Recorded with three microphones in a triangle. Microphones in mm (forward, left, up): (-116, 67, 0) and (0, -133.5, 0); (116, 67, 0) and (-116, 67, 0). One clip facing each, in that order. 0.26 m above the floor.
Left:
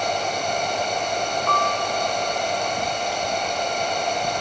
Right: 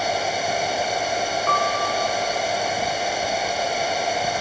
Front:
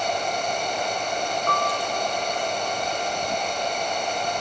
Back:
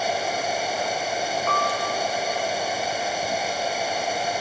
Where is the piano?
25° right, 1.8 m.